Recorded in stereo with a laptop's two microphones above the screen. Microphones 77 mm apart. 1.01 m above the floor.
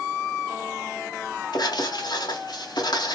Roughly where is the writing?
Left.